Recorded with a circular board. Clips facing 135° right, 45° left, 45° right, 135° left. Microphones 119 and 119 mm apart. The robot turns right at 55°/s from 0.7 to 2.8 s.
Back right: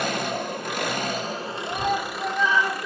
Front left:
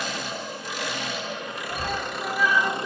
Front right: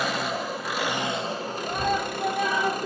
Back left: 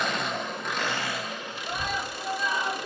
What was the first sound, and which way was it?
An engine running, 130° right.